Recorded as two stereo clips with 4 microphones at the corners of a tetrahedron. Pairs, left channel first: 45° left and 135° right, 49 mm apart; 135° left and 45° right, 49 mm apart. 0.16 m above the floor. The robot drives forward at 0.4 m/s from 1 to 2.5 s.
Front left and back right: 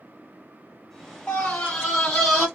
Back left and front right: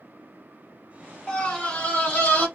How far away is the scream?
About 1.1 m.